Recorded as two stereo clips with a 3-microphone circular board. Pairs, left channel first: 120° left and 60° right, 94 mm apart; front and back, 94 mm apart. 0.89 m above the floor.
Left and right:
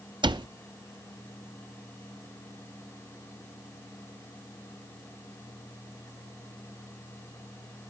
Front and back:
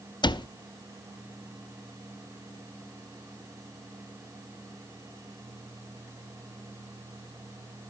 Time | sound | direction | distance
0.2 | a cupboard door | 30° right | 0.5 m